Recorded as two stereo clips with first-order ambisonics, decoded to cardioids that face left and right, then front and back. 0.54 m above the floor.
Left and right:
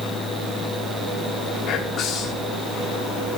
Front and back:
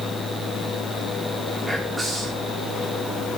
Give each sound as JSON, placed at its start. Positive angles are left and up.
{"t": 1.7, "sound": "whispering", "azimuth_deg": 100, "distance_m": 0.9}